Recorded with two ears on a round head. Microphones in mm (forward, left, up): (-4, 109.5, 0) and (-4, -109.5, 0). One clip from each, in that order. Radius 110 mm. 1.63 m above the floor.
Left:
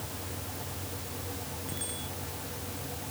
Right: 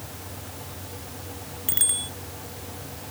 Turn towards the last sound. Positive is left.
turn(degrees=-70)  # may be behind; listen again after turning